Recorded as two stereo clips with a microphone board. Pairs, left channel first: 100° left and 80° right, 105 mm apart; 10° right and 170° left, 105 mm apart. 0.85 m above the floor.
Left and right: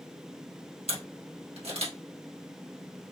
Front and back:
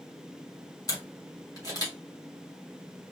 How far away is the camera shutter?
About 1.4 m.